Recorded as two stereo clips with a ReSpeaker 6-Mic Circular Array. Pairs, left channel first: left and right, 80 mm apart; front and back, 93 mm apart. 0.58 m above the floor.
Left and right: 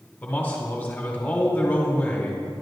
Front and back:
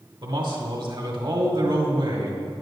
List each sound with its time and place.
0.2 s a man speaking: 160° left, 1.6 m